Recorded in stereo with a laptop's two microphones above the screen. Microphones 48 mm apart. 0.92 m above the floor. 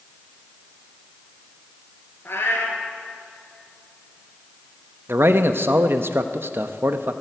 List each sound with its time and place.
2.2 s a cat meowing: 55° left (ahead or behind), 2 m
5.1 s a man speaking: 55° right (ahead or behind), 0.8 m